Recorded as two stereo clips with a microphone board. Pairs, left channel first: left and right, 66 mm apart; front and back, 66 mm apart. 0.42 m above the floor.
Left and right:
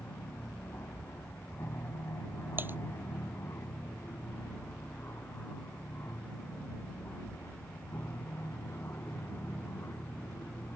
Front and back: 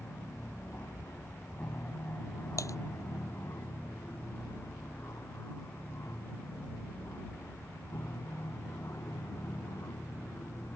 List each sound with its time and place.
0.0 s an aircraft: 45° left; by 10.8 s 40° left
2.6 s typing on a keyboard: 35° right